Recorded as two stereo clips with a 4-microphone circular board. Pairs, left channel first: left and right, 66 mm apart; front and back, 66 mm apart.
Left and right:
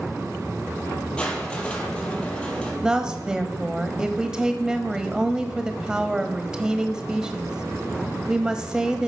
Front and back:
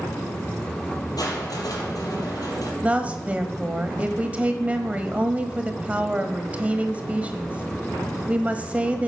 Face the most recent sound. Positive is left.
turn(degrees=-150)